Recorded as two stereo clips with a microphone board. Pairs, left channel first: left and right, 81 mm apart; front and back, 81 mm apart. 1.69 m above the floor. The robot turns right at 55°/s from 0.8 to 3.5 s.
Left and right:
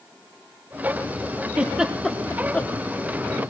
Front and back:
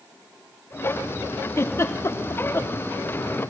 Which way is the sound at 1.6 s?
30° right.